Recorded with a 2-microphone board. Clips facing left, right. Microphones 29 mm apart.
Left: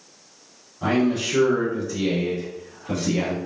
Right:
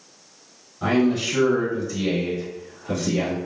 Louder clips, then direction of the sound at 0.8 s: Right 1 dB; centre (ahead or behind).